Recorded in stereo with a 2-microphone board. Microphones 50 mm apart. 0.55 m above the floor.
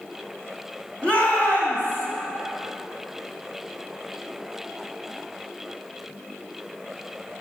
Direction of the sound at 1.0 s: 25° left (ahead or behind).